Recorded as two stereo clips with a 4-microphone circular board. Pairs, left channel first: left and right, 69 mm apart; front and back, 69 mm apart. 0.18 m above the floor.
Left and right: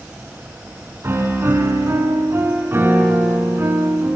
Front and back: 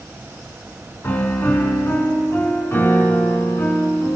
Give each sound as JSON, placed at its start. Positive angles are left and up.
{"t": 1.0, "sound": "a piano", "azimuth_deg": -50, "distance_m": 1.5}